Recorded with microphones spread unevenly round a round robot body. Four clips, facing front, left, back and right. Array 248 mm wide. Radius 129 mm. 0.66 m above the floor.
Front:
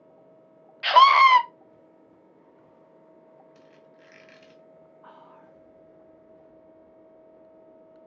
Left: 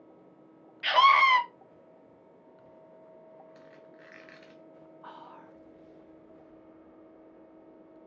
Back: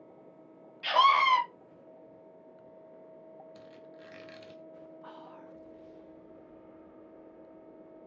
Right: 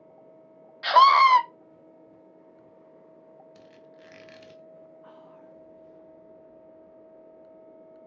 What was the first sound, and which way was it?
A scream, 55° right.